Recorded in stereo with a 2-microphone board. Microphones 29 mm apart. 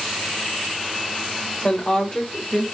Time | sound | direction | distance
1.6 | a woman speaking | 35° left (ahead or behind) | 1.5 m